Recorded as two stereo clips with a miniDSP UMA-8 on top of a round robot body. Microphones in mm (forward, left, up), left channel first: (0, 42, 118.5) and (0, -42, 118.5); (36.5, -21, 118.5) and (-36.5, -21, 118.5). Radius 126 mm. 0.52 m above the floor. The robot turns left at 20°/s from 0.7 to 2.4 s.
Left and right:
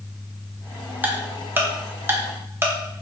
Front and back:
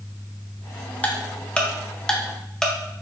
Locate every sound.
1.0 s ticking: 50° right, 1.1 m; by 3.0 s 75° right, 1.1 m